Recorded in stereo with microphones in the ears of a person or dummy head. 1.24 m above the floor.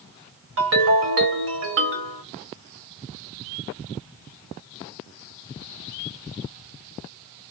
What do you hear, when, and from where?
0.6 s a ringtone: 65° right (ahead or behind), 1.2 m